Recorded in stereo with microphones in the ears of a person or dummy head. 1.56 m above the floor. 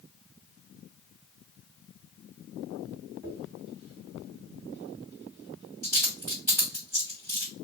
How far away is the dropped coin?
About 2.5 m.